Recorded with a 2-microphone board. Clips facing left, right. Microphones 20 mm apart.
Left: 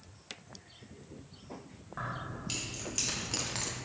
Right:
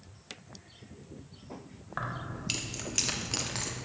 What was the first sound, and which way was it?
Keys jangling, 40° right (ahead or behind).